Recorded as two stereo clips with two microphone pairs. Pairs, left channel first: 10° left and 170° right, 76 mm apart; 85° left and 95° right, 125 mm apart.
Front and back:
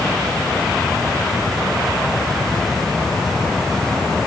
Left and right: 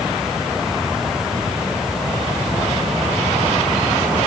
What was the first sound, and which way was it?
Only background noise.